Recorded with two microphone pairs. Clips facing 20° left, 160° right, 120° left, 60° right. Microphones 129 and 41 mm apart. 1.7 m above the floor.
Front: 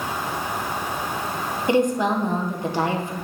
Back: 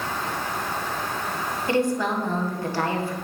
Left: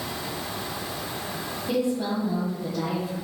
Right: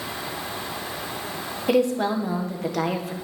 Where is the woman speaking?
50° right, 1.4 m.